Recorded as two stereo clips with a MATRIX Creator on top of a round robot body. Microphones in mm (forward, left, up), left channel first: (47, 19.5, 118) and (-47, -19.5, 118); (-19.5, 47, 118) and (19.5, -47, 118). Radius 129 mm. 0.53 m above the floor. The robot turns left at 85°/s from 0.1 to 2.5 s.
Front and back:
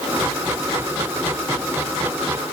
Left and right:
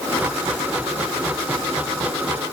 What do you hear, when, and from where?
Only background noise.